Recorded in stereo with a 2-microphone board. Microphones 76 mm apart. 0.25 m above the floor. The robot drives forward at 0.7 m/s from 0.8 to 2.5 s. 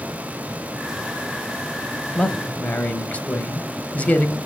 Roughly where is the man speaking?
Centre.